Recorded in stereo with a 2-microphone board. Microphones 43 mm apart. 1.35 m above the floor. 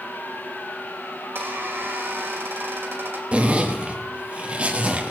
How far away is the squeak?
About 2.5 m.